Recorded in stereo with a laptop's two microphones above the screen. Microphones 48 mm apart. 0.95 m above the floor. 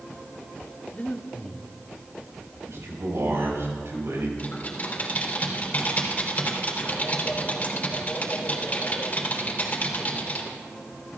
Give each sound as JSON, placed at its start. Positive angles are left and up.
{"t": 0.9, "sound": "breathing", "side_deg": 35, "distance_m": 1.1}
{"t": 2.7, "sound": "a man speaking", "side_deg": -75, "distance_m": 5.5}
{"t": 4.4, "sound": "typing on a keyboard", "side_deg": 35, "distance_m": 4.0}